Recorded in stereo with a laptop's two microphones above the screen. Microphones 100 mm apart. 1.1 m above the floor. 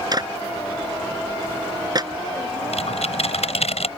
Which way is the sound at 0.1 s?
40° right (ahead or behind).